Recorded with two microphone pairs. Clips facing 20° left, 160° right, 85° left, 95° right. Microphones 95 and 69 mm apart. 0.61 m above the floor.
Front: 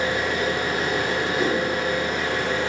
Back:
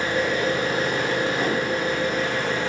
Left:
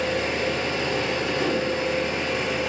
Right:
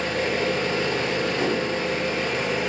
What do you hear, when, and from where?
0.0 s an engine running: 60° right, 1.2 m
1.3 s a whoosh: 105° right, 1.1 m